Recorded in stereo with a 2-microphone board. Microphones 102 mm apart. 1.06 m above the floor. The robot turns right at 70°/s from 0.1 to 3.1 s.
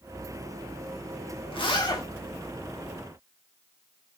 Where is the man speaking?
No man speaking in this recording.